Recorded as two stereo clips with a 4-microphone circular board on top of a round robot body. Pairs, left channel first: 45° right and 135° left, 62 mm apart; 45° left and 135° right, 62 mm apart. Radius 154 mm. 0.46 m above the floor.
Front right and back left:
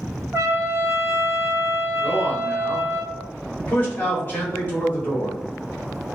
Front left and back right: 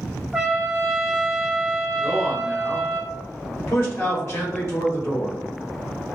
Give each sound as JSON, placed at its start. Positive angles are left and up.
{"t": 0.3, "sound": "a trumpet", "azimuth_deg": 135, "distance_m": 1.8}
{"t": 2.0, "sound": "a man speaking", "azimuth_deg": 15, "distance_m": 3.0}